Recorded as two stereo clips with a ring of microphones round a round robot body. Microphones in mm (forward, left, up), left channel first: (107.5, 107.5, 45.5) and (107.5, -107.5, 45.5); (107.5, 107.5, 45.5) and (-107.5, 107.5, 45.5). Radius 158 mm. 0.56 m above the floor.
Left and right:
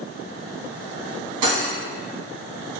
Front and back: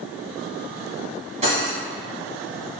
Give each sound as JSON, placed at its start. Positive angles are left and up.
{"t": 1.4, "sound": "cutlery clinking", "azimuth_deg": -110, "distance_m": 3.0}